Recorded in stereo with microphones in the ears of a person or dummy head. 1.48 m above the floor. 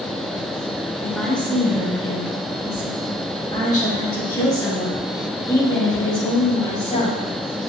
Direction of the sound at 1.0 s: Centre (ahead or behind).